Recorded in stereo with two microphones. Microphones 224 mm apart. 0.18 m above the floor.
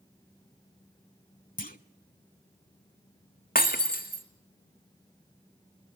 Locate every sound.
1.6 s a clunk: 40° left (ahead or behind), 0.7 m
3.5 s breaking glass: 40° left (ahead or behind), 1.8 m